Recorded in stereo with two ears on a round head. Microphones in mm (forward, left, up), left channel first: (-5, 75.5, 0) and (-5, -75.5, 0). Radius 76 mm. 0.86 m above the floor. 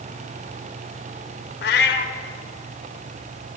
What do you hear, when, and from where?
1.6 s a cat meowing: 65° left (ahead or behind), 0.9 m